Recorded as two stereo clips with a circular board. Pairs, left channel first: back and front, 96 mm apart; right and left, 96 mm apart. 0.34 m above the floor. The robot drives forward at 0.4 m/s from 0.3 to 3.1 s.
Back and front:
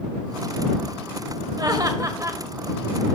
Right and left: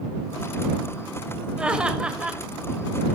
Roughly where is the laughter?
Ahead.